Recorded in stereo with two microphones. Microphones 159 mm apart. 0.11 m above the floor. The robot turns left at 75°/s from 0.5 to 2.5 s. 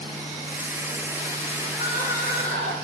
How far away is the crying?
About 0.9 m.